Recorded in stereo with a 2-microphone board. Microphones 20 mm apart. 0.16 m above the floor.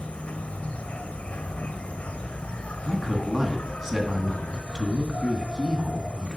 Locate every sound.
0.0 s an insect: 80° left, 0.7 m
2.9 s a man speaking: 15° right (ahead or behind), 1.6 m